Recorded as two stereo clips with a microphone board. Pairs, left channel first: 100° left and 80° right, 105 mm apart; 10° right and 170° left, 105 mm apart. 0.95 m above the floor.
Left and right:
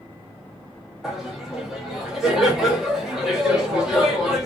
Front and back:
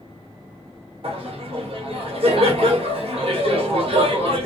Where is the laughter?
165° right, 1.2 m.